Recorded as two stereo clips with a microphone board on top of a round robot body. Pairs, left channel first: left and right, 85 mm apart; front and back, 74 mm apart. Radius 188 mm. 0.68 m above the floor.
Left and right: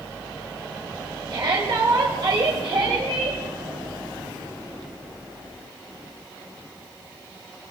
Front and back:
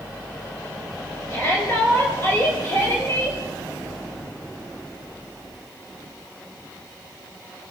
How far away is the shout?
About 5.5 m.